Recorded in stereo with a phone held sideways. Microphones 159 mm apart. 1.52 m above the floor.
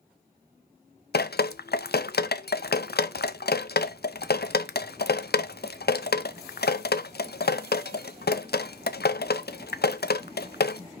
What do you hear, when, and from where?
1.1 s dripping: 85° left, 0.5 m